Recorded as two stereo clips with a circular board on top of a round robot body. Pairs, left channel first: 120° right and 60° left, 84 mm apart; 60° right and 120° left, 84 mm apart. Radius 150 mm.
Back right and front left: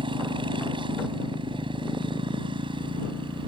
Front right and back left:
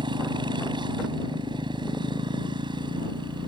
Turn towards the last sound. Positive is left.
turn(degrees=85)